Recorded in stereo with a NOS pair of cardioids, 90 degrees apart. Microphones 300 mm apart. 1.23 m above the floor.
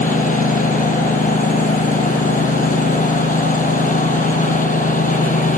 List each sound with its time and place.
0.0 s a lawn mower: 25° left